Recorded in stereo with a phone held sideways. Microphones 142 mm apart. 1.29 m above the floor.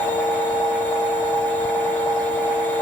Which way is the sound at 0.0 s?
10° left (ahead or behind).